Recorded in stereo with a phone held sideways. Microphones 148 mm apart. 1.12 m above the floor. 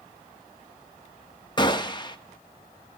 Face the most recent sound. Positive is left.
turn(degrees=30)  # may be behind; listen again after turning